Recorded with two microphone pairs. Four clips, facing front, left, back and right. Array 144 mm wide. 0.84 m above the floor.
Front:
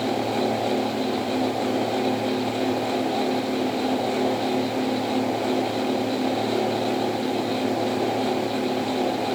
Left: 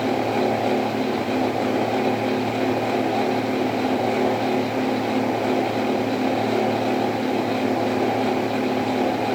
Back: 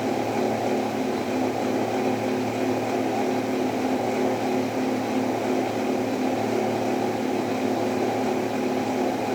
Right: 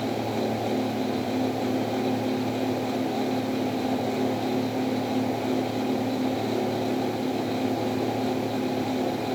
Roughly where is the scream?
I don't hear a scream.